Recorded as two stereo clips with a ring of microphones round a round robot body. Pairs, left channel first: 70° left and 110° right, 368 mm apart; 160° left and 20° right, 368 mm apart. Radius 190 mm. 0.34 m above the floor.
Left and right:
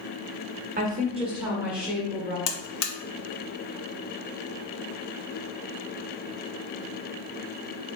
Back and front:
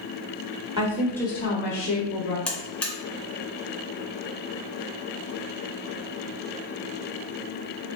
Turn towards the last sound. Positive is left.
turn(degrees=70)